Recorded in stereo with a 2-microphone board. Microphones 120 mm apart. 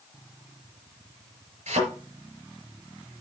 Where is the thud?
80° right, 5.5 m.